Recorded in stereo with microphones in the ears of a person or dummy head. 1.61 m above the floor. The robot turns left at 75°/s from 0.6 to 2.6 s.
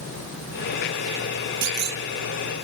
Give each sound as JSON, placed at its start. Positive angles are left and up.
{"t": 1.6, "sound": "a clunk", "side_deg": -75, "distance_m": 0.7}